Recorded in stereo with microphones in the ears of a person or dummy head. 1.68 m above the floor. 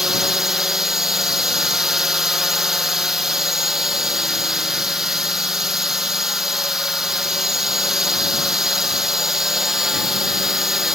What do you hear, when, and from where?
0.0 s a drone: centre (ahead or behind)